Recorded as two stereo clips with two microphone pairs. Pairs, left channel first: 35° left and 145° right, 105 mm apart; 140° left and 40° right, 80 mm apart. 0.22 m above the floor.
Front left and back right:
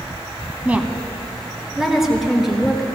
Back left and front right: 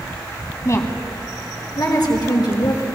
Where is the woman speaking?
150° left, 1.2 m; by 2.8 s 130° left, 3 m.